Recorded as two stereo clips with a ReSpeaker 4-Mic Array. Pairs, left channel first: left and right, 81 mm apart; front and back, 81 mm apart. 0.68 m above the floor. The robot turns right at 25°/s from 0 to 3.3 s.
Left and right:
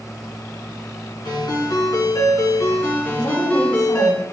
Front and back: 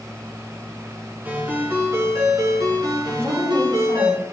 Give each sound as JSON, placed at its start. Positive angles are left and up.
{"t": 1.2, "sound": "a ringtone", "azimuth_deg": 110, "distance_m": 3.0}
{"t": 3.1, "sound": "a woman speaking", "azimuth_deg": 125, "distance_m": 3.5}